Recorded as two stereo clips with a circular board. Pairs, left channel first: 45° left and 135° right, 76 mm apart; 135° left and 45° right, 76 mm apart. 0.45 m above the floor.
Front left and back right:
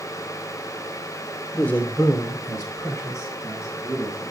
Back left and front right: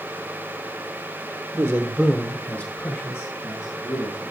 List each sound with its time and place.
1.5 s a man speaking: 25° right, 1.0 m; by 4.3 s 90° left, 3.5 m